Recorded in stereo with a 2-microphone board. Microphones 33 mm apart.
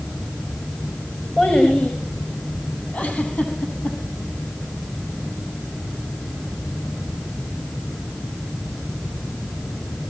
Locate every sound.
1.4 s a child speaking: 45° left (ahead or behind), 9.5 m
2.9 s a giggle: 50° left (ahead or behind), 7.5 m